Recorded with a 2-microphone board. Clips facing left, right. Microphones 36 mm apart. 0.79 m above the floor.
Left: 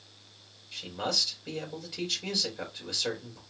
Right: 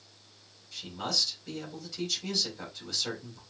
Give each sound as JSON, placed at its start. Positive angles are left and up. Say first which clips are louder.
{"t": 0.7, "sound": "a man speaking", "louder": "left 2 dB", "side_deg": 30, "distance_m": 3.0}